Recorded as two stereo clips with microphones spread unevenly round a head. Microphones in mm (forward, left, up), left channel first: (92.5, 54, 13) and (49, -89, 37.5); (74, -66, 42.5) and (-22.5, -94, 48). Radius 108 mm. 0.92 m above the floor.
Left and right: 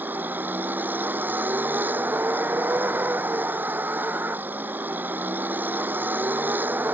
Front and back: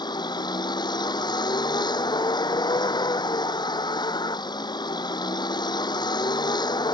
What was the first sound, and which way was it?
A vehicle, 30° right.